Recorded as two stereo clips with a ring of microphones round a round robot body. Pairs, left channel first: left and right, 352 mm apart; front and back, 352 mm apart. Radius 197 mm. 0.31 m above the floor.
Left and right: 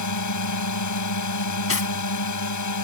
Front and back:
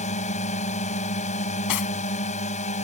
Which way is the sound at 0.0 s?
70° left.